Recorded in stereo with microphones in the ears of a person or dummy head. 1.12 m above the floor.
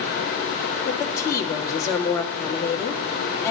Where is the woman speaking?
15° left (ahead or behind), 1.7 m.